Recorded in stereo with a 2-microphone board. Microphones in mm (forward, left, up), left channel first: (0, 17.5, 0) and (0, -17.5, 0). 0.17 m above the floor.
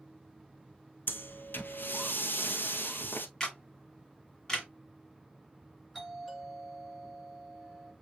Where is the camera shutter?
15° left (ahead or behind), 1.5 m.